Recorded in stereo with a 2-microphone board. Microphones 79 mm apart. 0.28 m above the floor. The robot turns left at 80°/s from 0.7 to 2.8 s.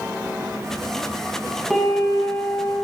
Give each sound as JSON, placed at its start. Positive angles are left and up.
{"t": 1.7, "sound": "a piano", "azimuth_deg": 5, "distance_m": 1.8}